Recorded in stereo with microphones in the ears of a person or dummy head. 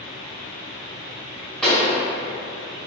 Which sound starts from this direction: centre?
A pop, at 1.6 s.